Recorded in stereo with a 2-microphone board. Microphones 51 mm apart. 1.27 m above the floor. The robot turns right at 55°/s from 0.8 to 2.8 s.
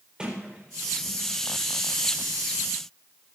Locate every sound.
0.2 s a sliding door: 15° right (ahead or behind), 4 m; by 1.3 s 45° right (ahead or behind), 4 m